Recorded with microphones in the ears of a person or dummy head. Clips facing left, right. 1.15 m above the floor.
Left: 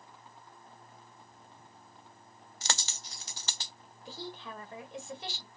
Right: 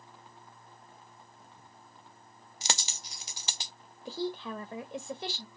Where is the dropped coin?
5° right (ahead or behind), 0.5 m.